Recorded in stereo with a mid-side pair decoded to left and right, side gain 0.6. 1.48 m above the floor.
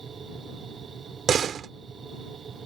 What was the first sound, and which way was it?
A machine running, 35° right.